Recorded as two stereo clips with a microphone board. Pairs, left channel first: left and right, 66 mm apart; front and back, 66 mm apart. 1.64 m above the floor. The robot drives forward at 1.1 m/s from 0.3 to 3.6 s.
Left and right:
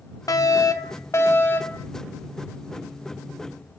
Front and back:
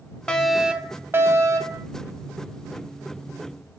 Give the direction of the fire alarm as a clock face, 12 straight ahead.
10 o'clock.